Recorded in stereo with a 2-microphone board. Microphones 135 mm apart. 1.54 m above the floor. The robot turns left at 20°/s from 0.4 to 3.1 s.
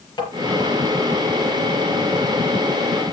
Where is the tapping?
30° left (ahead or behind), 4.5 m.